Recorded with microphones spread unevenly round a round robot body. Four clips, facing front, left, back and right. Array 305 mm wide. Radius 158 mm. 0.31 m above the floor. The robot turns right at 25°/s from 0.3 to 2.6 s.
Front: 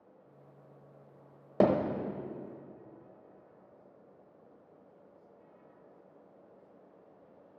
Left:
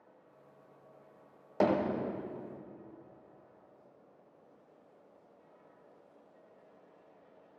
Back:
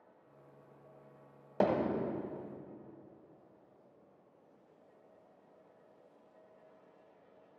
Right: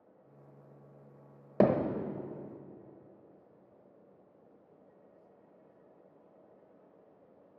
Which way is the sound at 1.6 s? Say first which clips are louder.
Right 2 dB, front 4 dB; 60° right.